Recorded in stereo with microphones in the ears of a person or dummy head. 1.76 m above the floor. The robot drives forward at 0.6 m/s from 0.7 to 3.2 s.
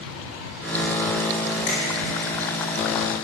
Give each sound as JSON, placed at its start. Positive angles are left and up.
{"t": 1.7, "sound": "a finger snap", "side_deg": 35, "distance_m": 4.0}